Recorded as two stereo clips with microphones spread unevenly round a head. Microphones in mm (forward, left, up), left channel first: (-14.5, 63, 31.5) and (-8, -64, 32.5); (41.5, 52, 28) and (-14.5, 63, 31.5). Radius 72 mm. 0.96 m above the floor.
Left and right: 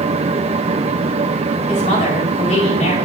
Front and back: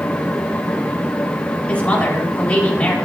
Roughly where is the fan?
Right.